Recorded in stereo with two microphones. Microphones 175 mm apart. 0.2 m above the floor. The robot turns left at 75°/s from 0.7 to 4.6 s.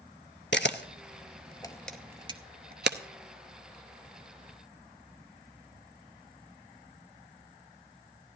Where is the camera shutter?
85° left, 0.5 m; by 3.0 s 75° right (ahead or behind), 0.5 m.